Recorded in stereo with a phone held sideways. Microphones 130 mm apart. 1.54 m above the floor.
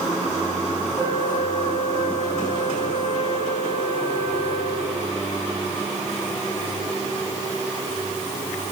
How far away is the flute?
About 3 m.